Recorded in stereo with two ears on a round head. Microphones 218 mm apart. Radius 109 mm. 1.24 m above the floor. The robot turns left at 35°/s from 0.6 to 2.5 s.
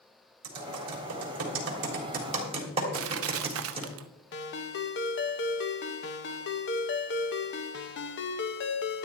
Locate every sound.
0.4 s typing on a keyboard: 85° right, 3.5 m; by 3.9 s 25° right (ahead or behind), 3.5 m
2.9 s crushing: 65° right (ahead or behind), 0.8 m
4.3 s a ringtone: 50° left (ahead or behind), 1.0 m